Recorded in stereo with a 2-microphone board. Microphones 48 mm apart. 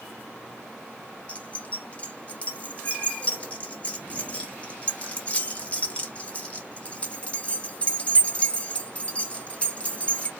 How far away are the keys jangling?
About 1.1 m.